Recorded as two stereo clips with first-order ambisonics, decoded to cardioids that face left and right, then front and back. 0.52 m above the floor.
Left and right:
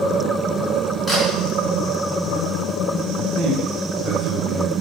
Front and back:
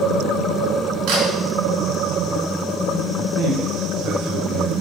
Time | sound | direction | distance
1.1 | a camera shutter | 170° left | 5.5 m
3.2 | a man speaking | 145° right | 2.5 m